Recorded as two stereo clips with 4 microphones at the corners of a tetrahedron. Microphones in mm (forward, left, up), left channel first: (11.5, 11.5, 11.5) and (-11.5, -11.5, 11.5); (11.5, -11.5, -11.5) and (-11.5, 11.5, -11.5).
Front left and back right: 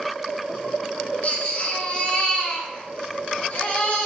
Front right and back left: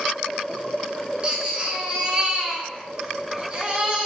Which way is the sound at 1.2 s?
85° left.